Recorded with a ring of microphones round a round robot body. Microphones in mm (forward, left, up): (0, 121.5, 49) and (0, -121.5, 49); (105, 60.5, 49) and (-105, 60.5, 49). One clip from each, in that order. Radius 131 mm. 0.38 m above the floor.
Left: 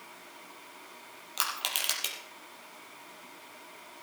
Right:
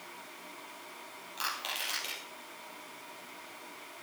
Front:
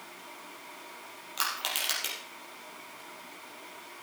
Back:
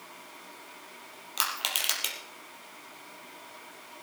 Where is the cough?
I don't hear a cough.